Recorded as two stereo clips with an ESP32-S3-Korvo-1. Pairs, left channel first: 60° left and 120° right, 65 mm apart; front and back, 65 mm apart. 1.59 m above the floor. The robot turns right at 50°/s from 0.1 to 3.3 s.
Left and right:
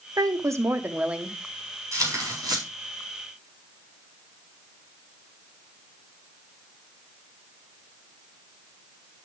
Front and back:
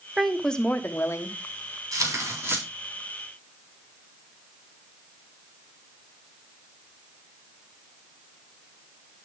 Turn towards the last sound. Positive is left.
turn(degrees=-90)